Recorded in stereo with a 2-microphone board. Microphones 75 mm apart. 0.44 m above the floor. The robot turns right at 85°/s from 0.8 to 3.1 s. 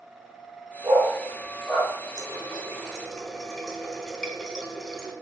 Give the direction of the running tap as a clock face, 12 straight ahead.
3 o'clock.